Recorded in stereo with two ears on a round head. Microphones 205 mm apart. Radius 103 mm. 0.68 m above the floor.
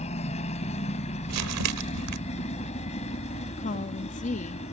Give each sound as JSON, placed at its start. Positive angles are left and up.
{"t": 0.0, "sound": "a helicopter", "side_deg": 30}
{"t": 1.3, "sound": "crumpling", "side_deg": -80}
{"t": 3.6, "sound": "a woman speaking", "side_deg": 35}